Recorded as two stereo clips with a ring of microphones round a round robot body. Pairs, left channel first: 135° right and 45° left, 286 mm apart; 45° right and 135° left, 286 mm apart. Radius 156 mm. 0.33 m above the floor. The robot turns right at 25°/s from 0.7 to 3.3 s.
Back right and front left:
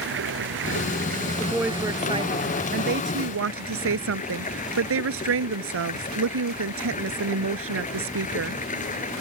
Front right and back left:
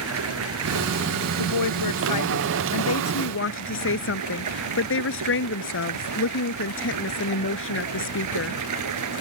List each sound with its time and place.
0.0 s running water: 95° left; by 9.2 s 160° left
1.4 s a woman speaking: 45° right; by 8.6 s straight ahead